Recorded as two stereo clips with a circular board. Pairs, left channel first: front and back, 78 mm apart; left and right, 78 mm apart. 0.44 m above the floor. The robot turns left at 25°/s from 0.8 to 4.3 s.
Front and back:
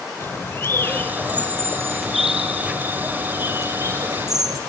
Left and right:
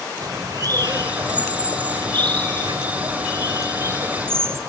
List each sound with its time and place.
0.2 s a bird: 60° right, 0.9 m; by 4.6 s 145° right, 0.9 m